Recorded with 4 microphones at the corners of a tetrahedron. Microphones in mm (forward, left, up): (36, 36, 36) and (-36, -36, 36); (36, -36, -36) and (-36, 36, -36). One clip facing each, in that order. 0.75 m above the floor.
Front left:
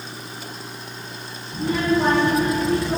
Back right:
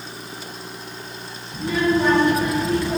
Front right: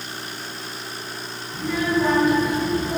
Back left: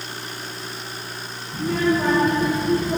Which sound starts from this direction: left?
A child speaking, at 1.5 s.